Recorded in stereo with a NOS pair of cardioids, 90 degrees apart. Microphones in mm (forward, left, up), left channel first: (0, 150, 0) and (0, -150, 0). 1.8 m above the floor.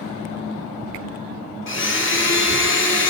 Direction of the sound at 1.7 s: 40° left.